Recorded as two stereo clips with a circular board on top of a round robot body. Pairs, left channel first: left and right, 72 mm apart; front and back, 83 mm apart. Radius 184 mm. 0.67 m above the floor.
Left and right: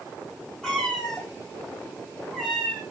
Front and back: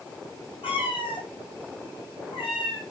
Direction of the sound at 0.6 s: 10° left.